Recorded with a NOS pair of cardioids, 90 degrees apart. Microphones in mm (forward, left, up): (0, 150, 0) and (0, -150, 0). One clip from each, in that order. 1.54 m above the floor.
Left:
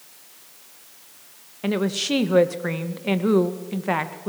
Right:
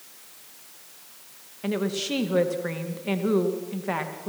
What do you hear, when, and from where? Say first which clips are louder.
1.6 s a woman speaking: left 4 dB; 35° left, 2 m